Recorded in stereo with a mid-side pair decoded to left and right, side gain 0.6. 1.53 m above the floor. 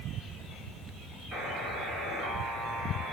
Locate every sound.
1.3 s a buzzer: 55° right, 6.5 m